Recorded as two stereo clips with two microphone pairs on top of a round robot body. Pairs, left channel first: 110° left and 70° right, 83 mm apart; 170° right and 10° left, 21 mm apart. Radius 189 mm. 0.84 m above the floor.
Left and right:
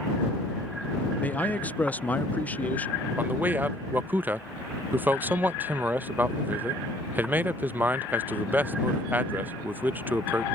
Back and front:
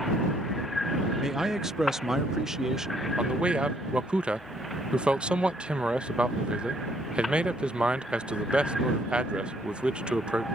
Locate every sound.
1.2 s a man speaking: 65° left
3.2 s a man speaking: 5° right